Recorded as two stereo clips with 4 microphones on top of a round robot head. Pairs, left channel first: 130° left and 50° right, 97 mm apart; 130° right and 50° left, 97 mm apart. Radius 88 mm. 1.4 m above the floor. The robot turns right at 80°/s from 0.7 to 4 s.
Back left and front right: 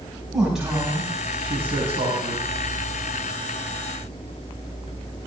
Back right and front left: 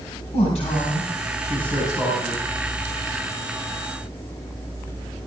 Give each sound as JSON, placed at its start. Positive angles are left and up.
{"t": 0.3, "sound": "a man speaking", "azimuth_deg": -135, "distance_m": 6.5}